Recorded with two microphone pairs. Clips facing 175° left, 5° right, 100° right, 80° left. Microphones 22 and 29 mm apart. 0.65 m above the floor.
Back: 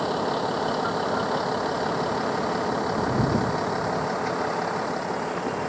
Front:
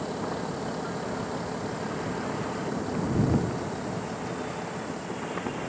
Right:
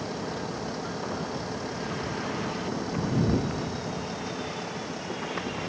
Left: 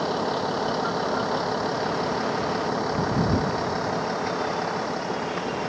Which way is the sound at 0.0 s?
130° left.